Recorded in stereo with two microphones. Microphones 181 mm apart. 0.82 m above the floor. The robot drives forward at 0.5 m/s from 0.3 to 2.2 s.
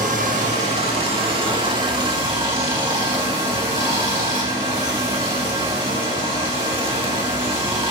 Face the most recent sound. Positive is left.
turn(degrees=-25)  # may be behind; listen again after turning